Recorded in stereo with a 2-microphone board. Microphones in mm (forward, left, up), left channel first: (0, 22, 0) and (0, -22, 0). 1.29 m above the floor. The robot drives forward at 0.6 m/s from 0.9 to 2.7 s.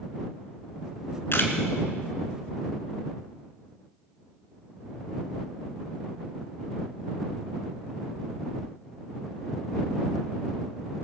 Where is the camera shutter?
60° left (ahead or behind), 2.5 m.